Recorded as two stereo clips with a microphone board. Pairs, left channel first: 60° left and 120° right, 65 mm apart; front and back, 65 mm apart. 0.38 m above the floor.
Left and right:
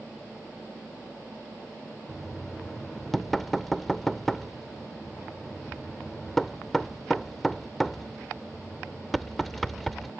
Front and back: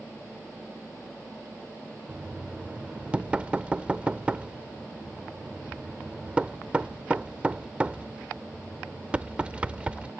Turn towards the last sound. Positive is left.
turn(degrees=145)